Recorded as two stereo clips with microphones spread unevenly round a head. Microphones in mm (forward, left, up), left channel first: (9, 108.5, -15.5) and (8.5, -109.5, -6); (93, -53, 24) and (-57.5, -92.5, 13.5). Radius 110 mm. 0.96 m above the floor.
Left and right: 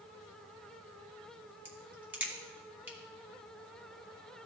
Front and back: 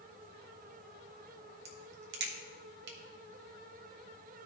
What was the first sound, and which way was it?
A crack, 170° right.